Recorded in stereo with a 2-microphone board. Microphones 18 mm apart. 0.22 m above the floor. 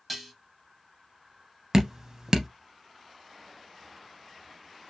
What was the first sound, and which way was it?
Dishes clattering, 5° right (ahead or behind).